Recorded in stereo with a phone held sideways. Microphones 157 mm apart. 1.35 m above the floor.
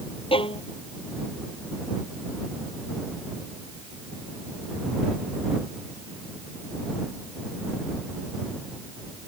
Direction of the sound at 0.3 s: 35° left (ahead or behind).